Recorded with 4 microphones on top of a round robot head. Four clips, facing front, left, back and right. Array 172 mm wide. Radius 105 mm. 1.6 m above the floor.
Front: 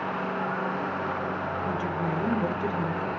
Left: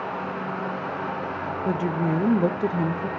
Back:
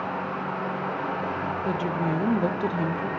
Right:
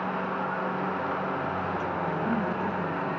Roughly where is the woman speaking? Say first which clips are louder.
Left 5 dB, back 4 dB; left.